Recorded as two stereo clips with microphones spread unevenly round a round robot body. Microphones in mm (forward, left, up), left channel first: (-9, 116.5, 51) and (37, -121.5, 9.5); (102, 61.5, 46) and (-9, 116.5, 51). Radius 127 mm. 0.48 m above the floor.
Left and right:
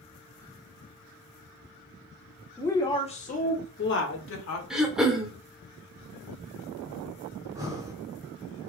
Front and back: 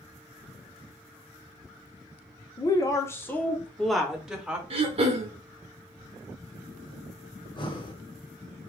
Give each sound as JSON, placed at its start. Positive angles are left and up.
{"t": 2.6, "sound": "a woman speaking", "azimuth_deg": 10, "distance_m": 1.1}
{"t": 4.7, "sound": "throat clearing", "azimuth_deg": -160, "distance_m": 0.5}
{"t": 7.4, "sound": "breathing", "azimuth_deg": -20, "distance_m": 1.0}